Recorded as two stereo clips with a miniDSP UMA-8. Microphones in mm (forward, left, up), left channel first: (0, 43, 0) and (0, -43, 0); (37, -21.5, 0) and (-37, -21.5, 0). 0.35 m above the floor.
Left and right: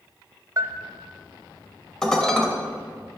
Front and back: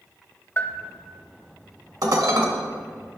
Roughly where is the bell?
Ahead right.